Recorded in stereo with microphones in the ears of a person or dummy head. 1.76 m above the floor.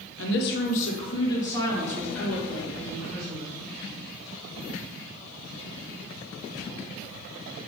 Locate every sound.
0.2 s a woman speaking: 80° left, 0.8 m; by 3.6 s centre (ahead or behind), 3 m